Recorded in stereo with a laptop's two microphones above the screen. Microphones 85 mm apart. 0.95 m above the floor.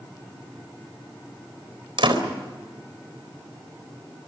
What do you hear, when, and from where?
2.0 s a door slam: 80° right, 4 m